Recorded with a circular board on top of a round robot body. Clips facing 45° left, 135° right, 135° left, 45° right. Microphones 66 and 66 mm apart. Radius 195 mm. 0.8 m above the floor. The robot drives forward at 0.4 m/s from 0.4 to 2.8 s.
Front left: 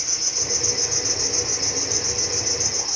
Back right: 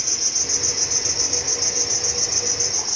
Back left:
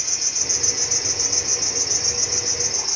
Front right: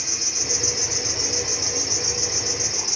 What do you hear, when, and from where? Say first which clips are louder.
0.0 s an insect: even, front right 2 dB; 130° right, 0.9 m; by 3.0 s 155° right, 1.7 m